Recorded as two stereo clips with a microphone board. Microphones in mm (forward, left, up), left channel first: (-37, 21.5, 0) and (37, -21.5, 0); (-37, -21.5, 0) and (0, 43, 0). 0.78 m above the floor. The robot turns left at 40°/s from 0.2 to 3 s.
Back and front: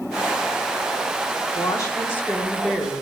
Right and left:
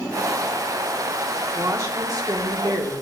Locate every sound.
1.6 s a woman speaking: 110° left, 1.5 m; by 2.9 s 55° left, 1.5 m